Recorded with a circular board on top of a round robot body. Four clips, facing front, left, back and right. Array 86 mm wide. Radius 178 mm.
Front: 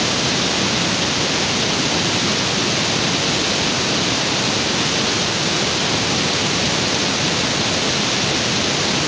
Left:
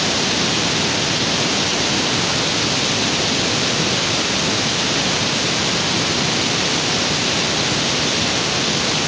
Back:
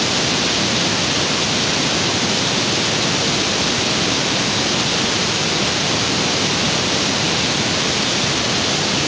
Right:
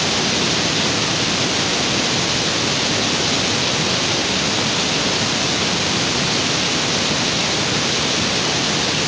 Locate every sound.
Only background noise.